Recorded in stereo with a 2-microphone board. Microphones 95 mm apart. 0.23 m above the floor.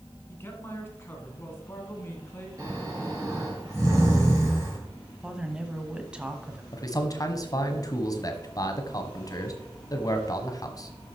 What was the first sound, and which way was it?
A man speaking, 25° left (ahead or behind).